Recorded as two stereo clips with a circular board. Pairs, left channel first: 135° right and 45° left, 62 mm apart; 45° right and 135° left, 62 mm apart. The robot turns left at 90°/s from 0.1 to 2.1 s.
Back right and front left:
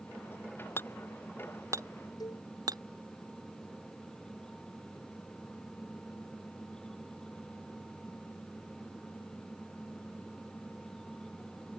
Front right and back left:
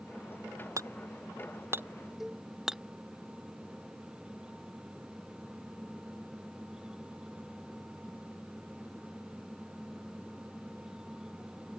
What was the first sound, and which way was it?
Hammering, 170° left.